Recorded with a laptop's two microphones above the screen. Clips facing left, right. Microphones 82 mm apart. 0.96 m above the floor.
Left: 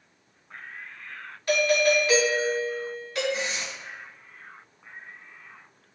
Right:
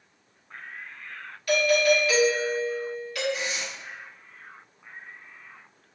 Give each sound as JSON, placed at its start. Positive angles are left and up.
{"t": 1.5, "sound": "a doorbell", "side_deg": 30, "distance_m": 2.0}
{"t": 3.3, "sound": "tearing paper", "side_deg": 35, "distance_m": 0.9}